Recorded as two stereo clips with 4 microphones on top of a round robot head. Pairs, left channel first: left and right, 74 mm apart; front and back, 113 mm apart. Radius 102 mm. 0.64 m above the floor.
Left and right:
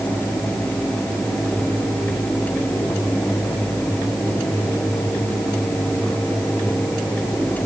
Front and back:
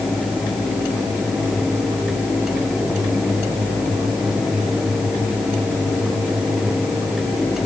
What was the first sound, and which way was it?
Only background noise.